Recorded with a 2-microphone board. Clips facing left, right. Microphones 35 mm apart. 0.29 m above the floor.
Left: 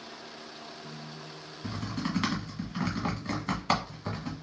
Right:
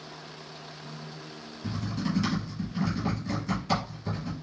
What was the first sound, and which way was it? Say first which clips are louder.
Typing on a keyboard: right 2 dB; 55° left (ahead or behind).